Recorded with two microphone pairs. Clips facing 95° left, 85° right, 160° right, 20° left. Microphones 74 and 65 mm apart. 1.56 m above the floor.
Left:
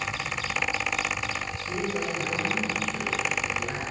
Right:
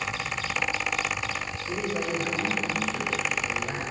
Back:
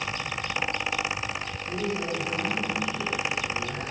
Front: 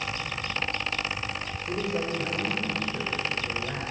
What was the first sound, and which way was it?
A man speaking, straight ahead.